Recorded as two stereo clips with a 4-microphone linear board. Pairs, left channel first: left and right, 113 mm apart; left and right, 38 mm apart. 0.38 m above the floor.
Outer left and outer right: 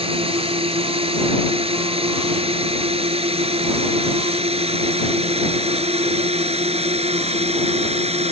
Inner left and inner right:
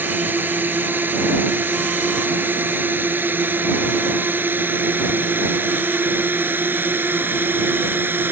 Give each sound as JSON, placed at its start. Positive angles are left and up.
{"t": 0.0, "sound": "a drone", "side_deg": -55}